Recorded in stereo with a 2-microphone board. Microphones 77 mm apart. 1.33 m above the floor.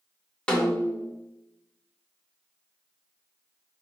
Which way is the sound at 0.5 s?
10° left (ahead or behind).